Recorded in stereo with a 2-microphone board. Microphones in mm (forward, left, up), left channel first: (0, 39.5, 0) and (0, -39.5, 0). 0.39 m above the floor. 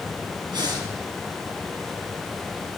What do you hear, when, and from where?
0.5 s breathing: 70° right (ahead or behind), 3 m